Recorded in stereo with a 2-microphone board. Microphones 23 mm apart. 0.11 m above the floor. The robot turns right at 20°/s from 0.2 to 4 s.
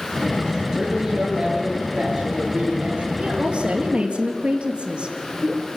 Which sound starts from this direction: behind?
A woman speaking, at 0.7 s.